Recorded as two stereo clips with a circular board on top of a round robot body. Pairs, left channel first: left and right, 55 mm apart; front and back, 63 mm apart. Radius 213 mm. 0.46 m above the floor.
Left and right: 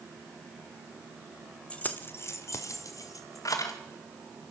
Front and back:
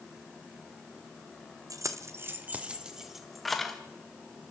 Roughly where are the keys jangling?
Behind left.